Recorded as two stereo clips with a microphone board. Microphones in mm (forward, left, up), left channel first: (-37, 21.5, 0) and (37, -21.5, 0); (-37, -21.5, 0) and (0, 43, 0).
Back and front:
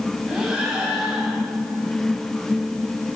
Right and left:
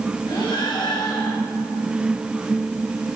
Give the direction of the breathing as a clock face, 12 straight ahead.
4 o'clock.